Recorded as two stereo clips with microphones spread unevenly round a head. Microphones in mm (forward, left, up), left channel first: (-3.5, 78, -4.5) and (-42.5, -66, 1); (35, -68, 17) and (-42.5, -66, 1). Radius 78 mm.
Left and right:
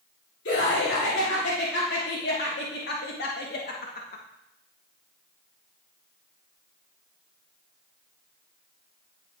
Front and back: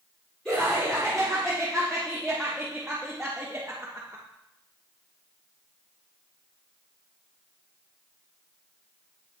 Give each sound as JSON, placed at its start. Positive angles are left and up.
{"t": 0.5, "sound": "laughter", "azimuth_deg": 80, "distance_m": 3.5}